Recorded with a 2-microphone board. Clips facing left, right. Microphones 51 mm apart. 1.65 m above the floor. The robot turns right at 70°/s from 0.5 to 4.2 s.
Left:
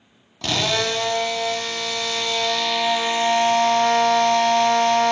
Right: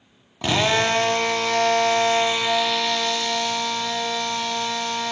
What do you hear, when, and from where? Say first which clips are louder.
0.4 s a drill: right 3 dB; 160° right, 0.8 m; by 5.1 s 100° left, 0.8 m